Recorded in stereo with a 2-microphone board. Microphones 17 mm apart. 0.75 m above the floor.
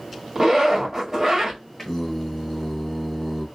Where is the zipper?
20° right (ahead or behind), 1.3 m.